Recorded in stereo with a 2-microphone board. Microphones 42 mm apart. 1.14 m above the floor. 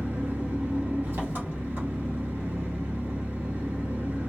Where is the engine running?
65° right (ahead or behind), 1.2 m.